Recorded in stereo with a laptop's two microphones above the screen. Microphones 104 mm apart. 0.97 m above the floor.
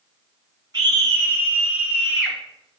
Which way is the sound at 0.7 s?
40° right (ahead or behind).